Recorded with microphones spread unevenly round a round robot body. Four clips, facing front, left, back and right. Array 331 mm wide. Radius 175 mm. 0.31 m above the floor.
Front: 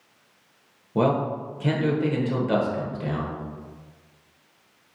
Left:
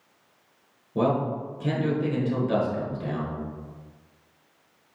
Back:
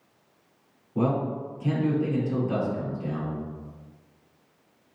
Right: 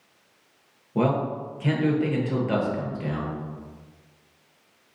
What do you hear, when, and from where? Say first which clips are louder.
0.9 s a man speaking: even, front 3 dB; 10° right, 1.0 m